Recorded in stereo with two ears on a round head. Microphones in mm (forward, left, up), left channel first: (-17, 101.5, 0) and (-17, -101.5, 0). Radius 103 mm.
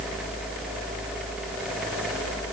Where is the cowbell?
I don't hear a cowbell.